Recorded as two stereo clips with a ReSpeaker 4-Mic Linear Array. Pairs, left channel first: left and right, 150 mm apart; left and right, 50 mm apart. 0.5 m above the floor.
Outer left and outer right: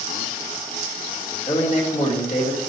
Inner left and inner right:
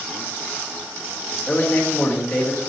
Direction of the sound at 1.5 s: 45° left (ahead or behind).